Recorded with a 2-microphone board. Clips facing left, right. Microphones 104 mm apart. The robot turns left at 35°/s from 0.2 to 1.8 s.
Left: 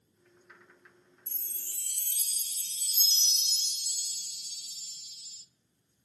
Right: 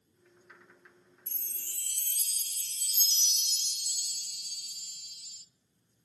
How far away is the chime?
About 0.6 m.